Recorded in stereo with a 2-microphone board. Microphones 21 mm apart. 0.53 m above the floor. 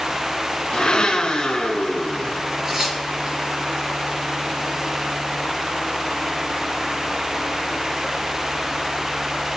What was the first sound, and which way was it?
A blender, 40° left (ahead or behind).